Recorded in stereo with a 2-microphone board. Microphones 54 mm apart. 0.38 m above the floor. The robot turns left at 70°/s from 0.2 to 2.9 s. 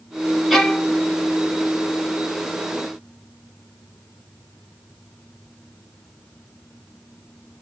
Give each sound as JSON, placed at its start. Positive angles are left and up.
{"t": 0.5, "sound": "a violin", "azimuth_deg": 180, "distance_m": 0.9}